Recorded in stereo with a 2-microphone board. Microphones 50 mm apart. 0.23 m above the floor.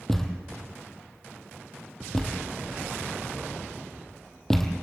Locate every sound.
0.1 s a thud: 10° left (ahead or behind), 2.5 m